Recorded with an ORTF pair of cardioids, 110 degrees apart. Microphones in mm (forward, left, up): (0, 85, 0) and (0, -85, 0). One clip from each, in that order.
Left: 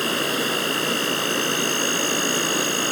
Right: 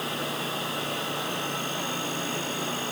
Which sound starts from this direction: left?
An insect, at 0.0 s.